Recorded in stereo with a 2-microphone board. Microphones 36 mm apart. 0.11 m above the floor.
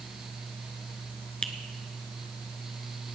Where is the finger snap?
25° left (ahead or behind), 0.9 m.